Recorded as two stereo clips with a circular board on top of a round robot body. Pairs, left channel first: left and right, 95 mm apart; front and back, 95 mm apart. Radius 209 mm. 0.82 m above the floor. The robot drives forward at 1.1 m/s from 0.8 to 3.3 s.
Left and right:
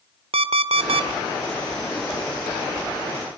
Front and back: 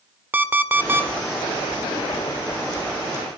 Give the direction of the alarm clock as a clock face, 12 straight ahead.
4 o'clock.